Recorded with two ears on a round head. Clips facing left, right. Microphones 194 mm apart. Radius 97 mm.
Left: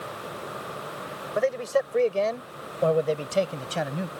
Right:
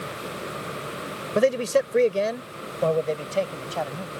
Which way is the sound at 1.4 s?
50° right (ahead or behind).